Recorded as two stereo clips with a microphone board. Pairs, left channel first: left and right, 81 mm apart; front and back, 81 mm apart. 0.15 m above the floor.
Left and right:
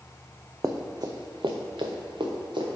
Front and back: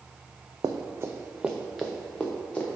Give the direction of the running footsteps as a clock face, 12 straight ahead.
5 o'clock.